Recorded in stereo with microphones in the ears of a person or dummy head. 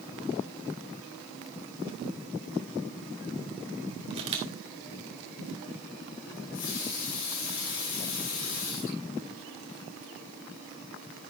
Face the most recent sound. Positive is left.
turn(degrees=75)  # may be behind; listen again after turning